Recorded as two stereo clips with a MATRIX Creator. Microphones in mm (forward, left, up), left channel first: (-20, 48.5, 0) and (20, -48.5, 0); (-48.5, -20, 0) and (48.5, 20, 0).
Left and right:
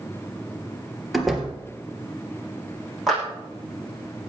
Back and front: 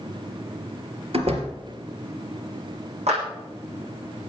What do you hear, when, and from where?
1.1 s a door slam: 20° left, 2.5 m
3.1 s a clap: 20° left, 9.5 m